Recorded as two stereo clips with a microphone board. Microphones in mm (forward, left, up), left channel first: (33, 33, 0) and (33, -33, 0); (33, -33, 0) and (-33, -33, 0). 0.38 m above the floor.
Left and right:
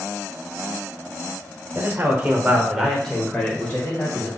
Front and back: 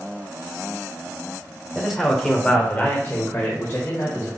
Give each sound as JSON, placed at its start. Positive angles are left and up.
{"t": 1.8, "sound": "a man speaking", "azimuth_deg": -100, "distance_m": 1.1}